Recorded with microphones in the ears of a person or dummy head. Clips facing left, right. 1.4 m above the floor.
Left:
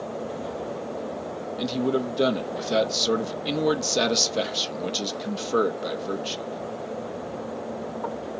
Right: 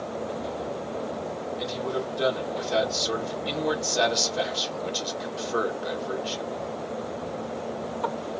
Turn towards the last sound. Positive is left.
turn(degrees=45)  # may be behind; listen again after turning